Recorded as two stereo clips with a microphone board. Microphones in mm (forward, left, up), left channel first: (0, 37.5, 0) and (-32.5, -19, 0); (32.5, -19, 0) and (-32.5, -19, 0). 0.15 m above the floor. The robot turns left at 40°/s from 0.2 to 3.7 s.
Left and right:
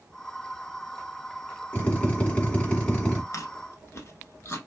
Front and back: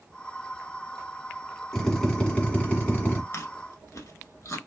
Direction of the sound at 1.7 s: 75° left.